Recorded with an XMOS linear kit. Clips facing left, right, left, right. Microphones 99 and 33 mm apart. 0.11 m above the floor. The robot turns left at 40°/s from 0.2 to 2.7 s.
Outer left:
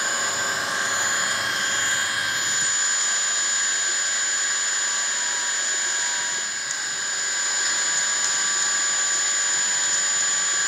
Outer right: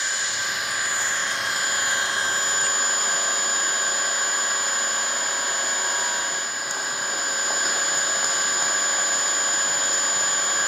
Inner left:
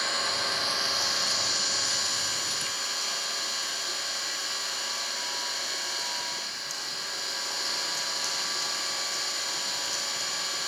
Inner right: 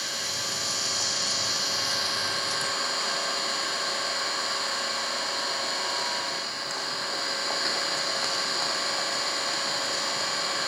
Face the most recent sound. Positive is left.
turn(degrees=-50)